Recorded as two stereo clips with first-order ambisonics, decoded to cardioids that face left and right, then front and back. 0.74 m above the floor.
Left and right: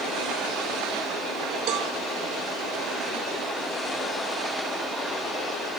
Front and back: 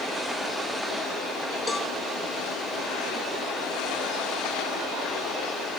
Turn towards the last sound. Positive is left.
turn(degrees=-75)